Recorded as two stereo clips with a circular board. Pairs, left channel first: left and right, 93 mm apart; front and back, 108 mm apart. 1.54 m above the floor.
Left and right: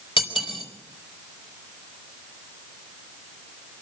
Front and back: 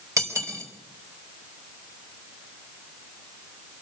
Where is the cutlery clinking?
120° left, 4 m.